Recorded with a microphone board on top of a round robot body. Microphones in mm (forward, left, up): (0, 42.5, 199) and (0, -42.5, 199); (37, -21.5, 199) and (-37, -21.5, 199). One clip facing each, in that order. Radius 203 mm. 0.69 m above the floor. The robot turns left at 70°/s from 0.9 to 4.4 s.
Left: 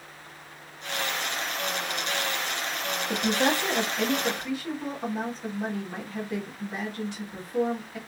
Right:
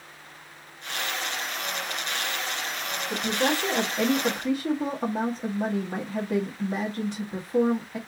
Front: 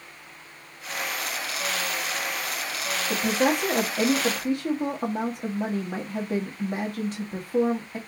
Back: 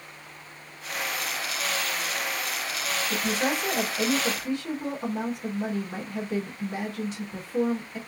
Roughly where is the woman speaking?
Ahead left.